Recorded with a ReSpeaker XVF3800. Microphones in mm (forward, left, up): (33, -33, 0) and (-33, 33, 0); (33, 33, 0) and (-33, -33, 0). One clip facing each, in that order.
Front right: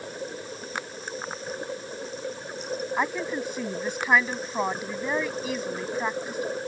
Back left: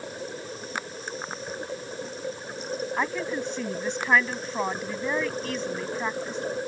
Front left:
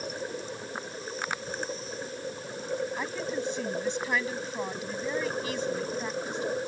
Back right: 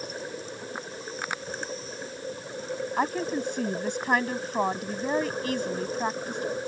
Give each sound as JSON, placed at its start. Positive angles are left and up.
{"t": 3.0, "sound": "a woman speaking", "azimuth_deg": -125}